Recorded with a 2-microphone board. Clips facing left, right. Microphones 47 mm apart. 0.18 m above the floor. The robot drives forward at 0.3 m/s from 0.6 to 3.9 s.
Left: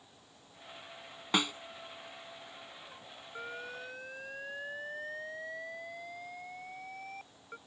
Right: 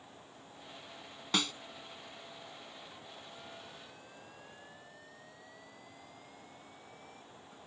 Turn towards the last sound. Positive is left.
turn(degrees=60)  # may be behind; listen again after turning